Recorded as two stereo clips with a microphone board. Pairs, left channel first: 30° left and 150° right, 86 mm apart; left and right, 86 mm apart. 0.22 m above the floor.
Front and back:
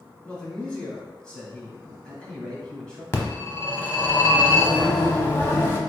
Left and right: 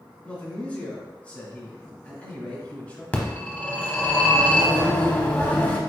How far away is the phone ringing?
About 0.8 m.